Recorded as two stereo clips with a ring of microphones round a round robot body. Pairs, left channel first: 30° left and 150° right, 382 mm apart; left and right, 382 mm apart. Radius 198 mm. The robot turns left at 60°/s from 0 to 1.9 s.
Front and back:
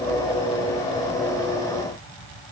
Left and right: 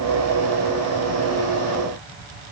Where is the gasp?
I don't hear a gasp.